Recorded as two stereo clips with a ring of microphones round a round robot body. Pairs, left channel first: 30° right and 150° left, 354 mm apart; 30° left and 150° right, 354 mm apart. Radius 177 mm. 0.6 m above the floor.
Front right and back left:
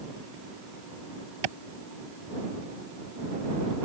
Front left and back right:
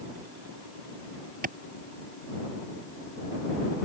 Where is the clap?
145° left.